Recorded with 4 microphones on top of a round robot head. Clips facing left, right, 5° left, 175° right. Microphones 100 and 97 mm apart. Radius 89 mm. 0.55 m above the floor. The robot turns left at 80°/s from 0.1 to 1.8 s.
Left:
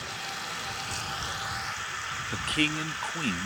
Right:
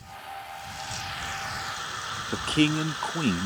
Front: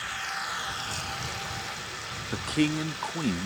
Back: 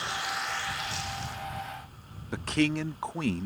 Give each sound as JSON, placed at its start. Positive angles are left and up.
{"t": 0.0, "sound": "running water", "azimuth_deg": 120}
{"t": 2.3, "sound": "a man speaking", "azimuth_deg": -75}